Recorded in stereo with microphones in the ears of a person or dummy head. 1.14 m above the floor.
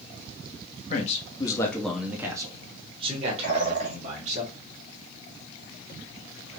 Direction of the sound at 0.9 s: 35° left (ahead or behind).